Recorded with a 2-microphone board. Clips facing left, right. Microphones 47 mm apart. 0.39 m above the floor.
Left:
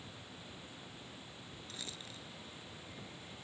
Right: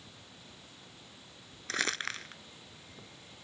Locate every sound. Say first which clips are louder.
1.7 s crumpling: right 18 dB; 80° right